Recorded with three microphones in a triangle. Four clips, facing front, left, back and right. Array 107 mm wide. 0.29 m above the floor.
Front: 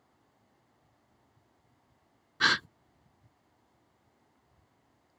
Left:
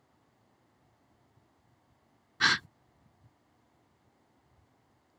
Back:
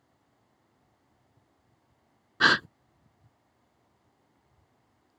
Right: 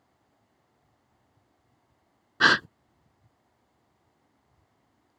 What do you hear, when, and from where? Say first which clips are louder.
2.4 s a gasp: right 7 dB, back 5 dB; 120° right